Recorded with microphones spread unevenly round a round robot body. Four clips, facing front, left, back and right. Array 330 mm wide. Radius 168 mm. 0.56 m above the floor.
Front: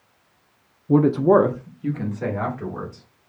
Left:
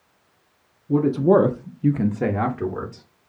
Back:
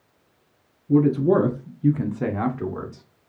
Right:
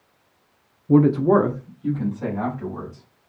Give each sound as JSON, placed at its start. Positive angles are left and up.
{"t": 0.9, "sound": "a man speaking", "azimuth_deg": -55, "distance_m": 0.6}